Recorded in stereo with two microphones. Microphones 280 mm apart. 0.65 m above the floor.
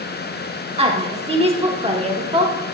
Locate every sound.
0.8 s a woman speaking: 20° right (ahead or behind), 1.0 m